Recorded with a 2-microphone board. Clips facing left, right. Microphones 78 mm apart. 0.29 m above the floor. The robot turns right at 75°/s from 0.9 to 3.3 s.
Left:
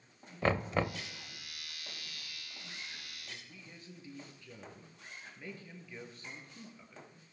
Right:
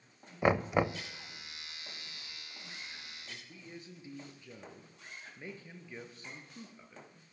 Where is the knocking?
15° right (ahead or behind), 0.6 m; by 1.0 s 20° right (ahead or behind), 0.6 m.